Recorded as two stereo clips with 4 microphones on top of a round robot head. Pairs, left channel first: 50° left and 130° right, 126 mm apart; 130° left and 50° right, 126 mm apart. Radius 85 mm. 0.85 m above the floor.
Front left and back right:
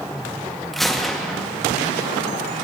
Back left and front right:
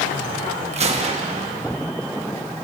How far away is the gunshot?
About 1.5 m.